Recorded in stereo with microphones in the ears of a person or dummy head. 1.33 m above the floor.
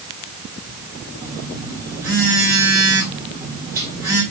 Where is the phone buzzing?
10° right (ahead or behind), 2.5 m.